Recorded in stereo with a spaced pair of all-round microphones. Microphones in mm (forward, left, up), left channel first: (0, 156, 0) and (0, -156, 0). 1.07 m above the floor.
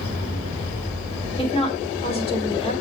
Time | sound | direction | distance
1.4 | a woman speaking | 20° left (ahead or behind) | 3 m